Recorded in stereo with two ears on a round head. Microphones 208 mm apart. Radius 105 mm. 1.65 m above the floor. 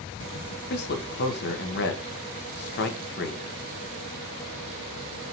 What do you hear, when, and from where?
0.7 s a man speaking: 45° left (ahead or behind), 0.8 m